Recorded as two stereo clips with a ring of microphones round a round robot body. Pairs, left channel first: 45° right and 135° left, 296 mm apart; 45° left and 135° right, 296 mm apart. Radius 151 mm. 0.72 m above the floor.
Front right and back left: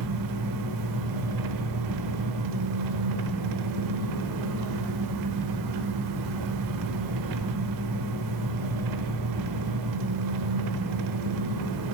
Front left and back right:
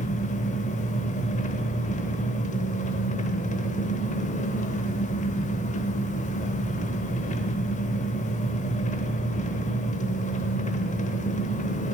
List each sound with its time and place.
0.0 s an engine running: 110° left, 0.9 m